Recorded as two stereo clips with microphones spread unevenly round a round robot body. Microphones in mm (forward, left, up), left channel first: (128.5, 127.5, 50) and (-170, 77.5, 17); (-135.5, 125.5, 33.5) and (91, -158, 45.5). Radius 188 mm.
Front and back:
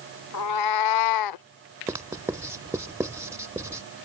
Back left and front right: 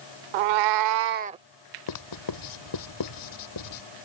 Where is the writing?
110° left.